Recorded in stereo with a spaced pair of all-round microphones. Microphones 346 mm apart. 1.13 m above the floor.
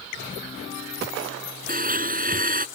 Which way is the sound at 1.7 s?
25° right (ahead or behind).